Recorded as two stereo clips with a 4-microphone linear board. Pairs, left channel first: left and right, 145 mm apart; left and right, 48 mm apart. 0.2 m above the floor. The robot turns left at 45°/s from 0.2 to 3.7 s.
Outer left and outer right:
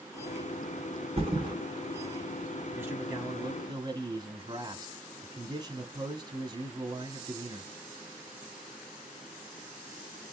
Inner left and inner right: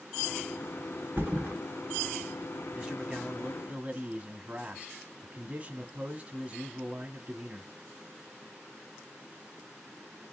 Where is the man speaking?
25° right, 1.5 m; by 7.7 s 65° right, 1.5 m.